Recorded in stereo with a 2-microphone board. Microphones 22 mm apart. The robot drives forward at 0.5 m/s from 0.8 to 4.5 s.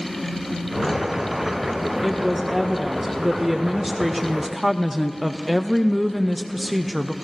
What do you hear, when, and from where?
2.0 s a woman speaking: centre (ahead or behind), 1.8 m; by 7.2 s 5° right (ahead or behind), 0.6 m